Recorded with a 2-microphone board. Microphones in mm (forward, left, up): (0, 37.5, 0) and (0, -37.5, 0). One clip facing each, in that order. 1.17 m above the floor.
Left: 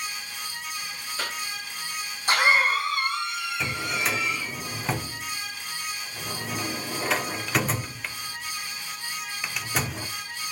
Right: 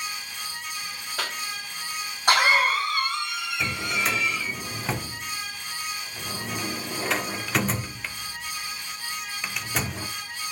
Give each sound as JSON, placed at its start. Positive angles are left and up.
{"t": 1.2, "sound": "a cough", "side_deg": -65, "distance_m": 4.0}
{"t": 3.6, "sound": "a drawer", "side_deg": 0, "distance_m": 1.0}